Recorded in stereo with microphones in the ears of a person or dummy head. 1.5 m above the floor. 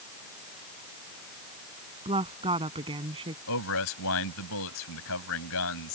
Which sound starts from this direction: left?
A man speaking, at 3.5 s.